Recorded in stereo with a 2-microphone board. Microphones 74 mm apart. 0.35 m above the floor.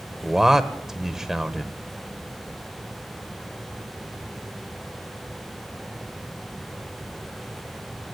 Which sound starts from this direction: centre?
A man speaking, at 0.2 s.